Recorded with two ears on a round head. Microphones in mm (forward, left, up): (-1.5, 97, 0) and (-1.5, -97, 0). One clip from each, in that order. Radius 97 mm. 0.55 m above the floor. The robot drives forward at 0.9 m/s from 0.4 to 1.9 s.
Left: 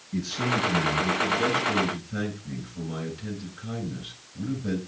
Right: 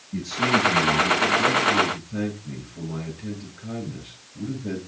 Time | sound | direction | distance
0.1 | a man speaking | 80° left | 6.5 m